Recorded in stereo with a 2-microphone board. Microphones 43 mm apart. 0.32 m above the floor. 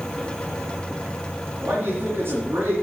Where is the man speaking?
65° right (ahead or behind), 3 m.